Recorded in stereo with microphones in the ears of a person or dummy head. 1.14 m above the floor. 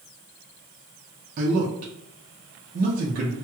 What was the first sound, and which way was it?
A man speaking, 45° right (ahead or behind).